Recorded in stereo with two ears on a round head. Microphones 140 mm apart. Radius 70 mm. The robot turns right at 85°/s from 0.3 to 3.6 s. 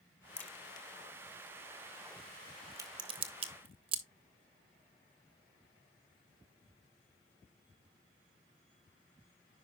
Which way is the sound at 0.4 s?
5° left (ahead or behind).